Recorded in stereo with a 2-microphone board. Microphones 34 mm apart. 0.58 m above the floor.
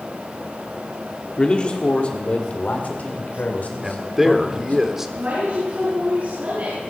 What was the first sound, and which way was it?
A man speaking, 30° left (ahead or behind).